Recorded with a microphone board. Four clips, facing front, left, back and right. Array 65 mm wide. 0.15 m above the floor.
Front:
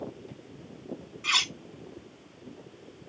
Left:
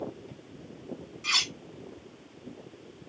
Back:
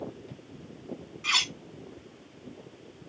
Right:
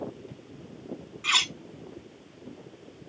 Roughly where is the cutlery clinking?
Right.